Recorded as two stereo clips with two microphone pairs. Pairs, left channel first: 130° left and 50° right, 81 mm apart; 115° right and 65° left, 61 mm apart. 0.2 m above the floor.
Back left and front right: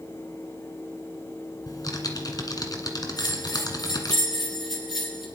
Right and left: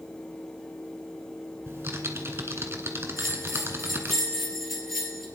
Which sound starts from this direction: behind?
A bell, at 3.2 s.